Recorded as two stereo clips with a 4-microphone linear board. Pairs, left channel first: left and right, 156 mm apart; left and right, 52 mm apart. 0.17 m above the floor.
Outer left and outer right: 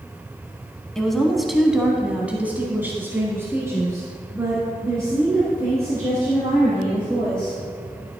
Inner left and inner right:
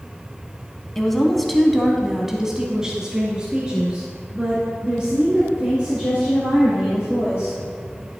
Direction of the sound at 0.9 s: 5° left (ahead or behind).